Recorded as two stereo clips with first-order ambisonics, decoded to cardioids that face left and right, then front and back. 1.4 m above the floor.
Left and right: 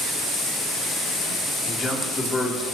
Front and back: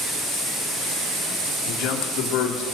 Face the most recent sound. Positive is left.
turn(degrees=10)